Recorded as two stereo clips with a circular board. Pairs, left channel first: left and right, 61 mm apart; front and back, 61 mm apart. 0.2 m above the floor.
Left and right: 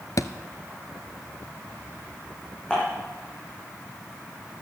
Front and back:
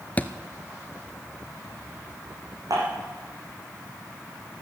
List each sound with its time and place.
0.2 s a thud: 65° left, 0.8 m
2.7 s dishes clattering: 165° left, 8.5 m